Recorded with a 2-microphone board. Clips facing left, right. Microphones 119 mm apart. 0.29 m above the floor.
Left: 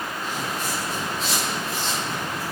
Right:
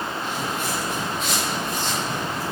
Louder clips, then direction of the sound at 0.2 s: Right 2 dB; 40° left (ahead or behind).